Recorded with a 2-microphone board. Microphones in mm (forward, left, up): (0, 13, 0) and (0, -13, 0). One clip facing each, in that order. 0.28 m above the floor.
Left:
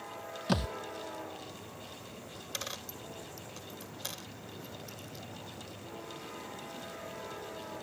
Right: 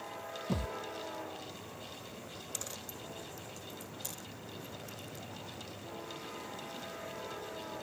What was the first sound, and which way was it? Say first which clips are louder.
A thud: left 6 dB; 80° left.